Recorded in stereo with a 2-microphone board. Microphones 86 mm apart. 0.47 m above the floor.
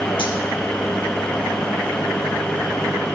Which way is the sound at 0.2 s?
70° left (ahead or behind).